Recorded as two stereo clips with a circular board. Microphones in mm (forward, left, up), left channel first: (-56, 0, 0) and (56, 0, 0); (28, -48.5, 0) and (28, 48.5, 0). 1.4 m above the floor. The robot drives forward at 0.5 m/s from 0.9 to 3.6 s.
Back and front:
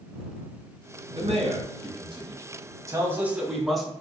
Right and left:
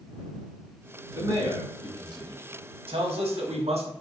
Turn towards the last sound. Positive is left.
turn(degrees=90)